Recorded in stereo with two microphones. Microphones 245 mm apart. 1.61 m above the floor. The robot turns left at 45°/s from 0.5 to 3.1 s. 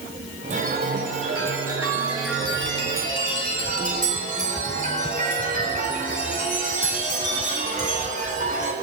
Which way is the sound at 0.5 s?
30° right.